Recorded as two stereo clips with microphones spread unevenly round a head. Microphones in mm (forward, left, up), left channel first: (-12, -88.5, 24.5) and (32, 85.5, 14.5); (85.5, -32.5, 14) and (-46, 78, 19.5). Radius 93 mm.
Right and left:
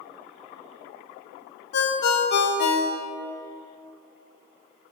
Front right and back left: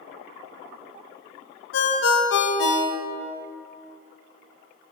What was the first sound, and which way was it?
A ringtone, 70° right.